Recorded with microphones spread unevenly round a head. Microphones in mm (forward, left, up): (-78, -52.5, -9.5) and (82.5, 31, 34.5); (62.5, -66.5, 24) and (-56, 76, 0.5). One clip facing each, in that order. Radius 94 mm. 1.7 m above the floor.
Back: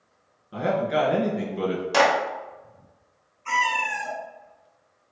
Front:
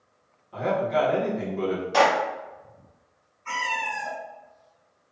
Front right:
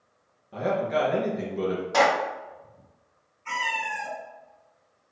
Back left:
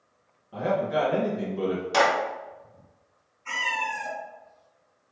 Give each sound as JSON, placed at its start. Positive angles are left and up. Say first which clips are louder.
{"t": 0.5, "sound": "a man speaking", "louder": "back 1 dB, even", "azimuth_deg": -130, "distance_m": 1.9}
{"t": 1.9, "sound": "a clap", "louder": "even, front right 2 dB", "azimuth_deg": 180, "distance_m": 1.3}
{"t": 3.5, "sound": "a cat meowing", "louder": "back 4 dB, even", "azimuth_deg": -150, "distance_m": 1.8}